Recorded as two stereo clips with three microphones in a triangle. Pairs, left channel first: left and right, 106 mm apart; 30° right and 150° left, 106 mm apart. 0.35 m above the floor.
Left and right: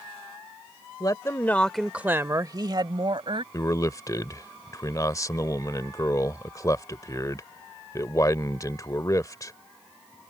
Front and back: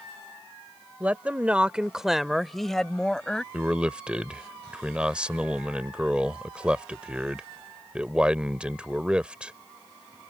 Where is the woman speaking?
85° left; by 3.4 s 115° right.